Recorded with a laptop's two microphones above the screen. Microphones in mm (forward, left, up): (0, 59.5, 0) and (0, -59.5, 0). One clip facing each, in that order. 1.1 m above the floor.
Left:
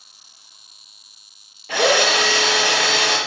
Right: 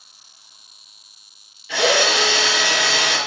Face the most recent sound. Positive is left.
turn(degrees=50)  # may be behind; listen again after turning